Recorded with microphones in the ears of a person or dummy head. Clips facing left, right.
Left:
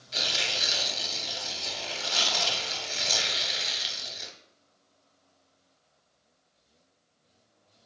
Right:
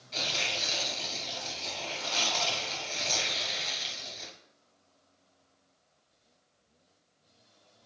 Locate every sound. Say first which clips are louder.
0.1 s tearing paper: left 1 dB; 15° left (ahead or behind), 0.7 m